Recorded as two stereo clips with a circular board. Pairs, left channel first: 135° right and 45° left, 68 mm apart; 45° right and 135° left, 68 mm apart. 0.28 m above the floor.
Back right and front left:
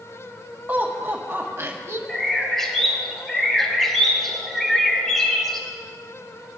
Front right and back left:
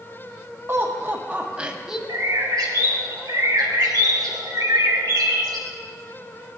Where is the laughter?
100° left, 1.8 m; by 2.0 s 55° left, 1.6 m.